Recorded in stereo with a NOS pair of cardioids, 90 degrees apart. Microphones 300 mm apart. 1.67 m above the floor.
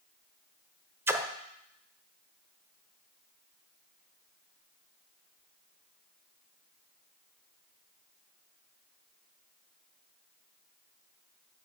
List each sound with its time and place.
1.1 s a splash: 10° right, 0.6 m